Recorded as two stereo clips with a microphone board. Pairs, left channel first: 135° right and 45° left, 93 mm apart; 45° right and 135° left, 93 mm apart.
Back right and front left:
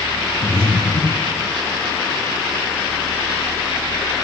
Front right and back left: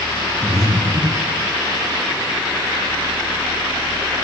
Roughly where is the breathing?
Behind right.